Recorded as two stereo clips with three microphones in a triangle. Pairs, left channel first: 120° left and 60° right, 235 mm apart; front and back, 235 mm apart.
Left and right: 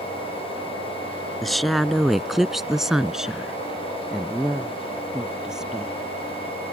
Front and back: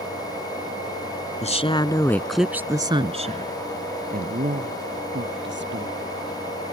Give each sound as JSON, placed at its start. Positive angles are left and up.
{"t": 1.4, "sound": "a woman speaking", "azimuth_deg": 30}